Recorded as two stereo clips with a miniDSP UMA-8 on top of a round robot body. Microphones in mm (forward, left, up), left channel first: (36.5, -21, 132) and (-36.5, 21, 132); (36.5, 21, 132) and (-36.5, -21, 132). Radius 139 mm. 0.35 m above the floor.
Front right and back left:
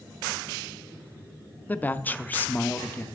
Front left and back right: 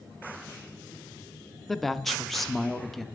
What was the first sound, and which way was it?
A woman speaking, 55° right.